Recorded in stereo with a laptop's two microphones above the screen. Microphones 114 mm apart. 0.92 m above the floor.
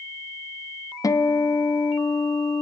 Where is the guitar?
30° left (ahead or behind), 1.0 m.